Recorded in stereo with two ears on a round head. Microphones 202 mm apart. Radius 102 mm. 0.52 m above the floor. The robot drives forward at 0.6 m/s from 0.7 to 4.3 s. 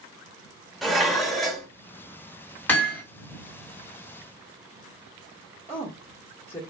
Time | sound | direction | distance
0.8 | dishes clattering | centre (ahead or behind) | 0.9 m
2.7 | hammering | 10° left (ahead or behind) | 2.5 m
5.7 | a woman speaking | 10° left (ahead or behind) | 1.2 m